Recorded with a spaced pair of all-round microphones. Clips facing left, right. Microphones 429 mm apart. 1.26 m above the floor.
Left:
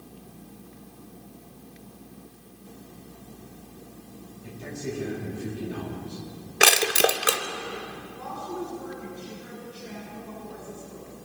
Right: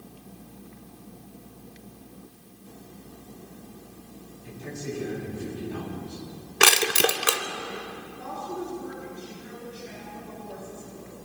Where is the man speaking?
80° left, 8.5 m.